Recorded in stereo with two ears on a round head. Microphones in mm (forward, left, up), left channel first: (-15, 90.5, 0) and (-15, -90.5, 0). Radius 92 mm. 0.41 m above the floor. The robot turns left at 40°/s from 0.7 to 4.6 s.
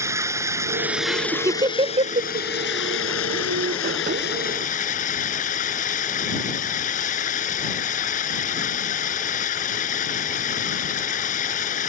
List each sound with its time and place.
0.0 s running water: 165° right; by 11.9 s 40° left
1.1 s laughter: 5° right (ahead or behind); by 2.5 s 40° right (ahead or behind)